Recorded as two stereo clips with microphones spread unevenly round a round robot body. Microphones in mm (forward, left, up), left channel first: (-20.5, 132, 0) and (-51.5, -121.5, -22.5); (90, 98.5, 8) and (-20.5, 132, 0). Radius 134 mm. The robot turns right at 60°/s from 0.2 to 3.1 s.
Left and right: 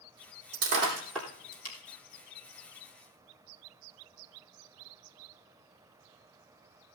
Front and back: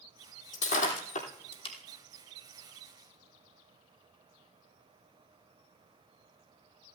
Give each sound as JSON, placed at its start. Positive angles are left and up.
{"t": 0.5, "sound": "breaking glass", "azimuth_deg": -45, "distance_m": 3.0}